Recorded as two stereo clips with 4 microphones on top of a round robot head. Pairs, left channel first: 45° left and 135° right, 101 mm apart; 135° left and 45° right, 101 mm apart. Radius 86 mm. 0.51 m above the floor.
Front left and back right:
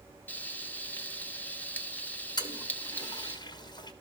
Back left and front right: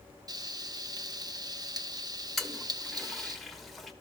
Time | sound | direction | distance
0.3 | frying | 20° right | 1.4 m
2.4 | a toilet flushing | 45° left | 1.7 m